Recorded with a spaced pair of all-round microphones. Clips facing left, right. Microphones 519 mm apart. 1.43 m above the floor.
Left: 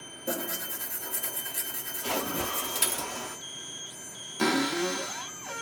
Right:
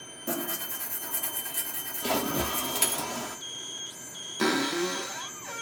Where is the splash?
60° right (ahead or behind), 0.6 m.